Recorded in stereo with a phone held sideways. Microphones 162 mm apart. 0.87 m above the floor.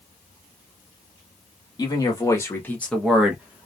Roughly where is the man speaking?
Left.